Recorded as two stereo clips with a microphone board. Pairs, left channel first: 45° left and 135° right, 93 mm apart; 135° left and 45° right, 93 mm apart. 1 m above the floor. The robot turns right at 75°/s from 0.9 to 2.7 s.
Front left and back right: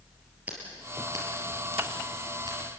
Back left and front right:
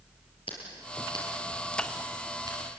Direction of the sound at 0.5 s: 150° left.